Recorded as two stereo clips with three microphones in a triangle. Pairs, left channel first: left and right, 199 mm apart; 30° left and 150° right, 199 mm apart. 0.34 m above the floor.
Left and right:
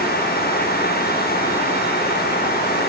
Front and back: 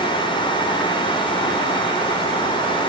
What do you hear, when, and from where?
Only background noise.